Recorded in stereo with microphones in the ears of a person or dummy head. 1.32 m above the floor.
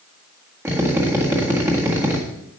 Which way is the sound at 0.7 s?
10° right (ahead or behind).